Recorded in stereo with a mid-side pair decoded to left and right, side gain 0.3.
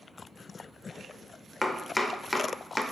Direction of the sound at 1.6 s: 25° left.